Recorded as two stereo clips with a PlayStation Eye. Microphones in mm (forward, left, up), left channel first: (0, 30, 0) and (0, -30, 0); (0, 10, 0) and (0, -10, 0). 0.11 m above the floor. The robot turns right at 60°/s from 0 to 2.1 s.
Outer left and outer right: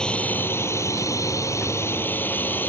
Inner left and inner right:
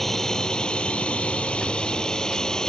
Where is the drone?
15° left; by 2.7 s 140° left.